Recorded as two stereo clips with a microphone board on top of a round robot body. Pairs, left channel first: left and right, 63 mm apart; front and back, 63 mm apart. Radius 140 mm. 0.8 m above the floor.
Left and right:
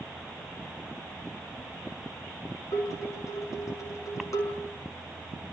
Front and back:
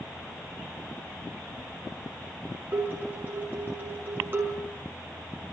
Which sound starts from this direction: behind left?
Dishes clattering, at 2.7 s.